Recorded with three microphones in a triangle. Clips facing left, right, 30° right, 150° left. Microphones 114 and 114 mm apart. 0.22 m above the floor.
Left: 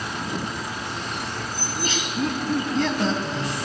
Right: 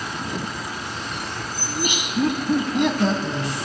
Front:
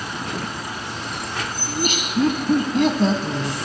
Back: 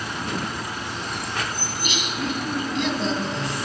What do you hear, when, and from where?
1.7 s laughter: 20° right, 1.3 m